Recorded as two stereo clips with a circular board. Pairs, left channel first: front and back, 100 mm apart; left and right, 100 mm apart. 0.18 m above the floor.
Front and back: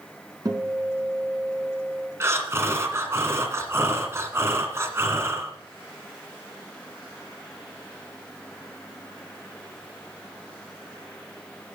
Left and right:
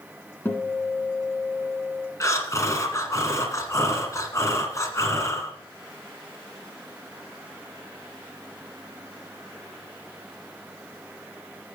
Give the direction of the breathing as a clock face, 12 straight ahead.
8 o'clock.